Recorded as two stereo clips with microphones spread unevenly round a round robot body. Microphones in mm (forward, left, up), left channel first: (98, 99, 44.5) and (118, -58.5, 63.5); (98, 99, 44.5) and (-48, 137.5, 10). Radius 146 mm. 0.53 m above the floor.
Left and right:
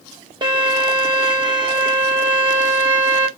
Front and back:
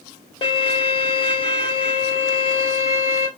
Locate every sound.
0.4 s a violin: 55° right, 1.4 m